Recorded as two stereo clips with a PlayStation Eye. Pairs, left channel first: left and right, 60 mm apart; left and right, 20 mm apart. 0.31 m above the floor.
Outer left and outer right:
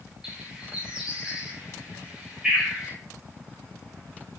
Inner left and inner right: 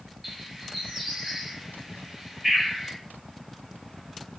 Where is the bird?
15° right (ahead or behind), 1.0 m.